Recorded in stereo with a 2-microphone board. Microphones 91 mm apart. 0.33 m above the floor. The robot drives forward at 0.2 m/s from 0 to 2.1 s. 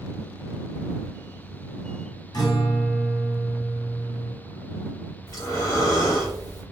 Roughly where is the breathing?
Left.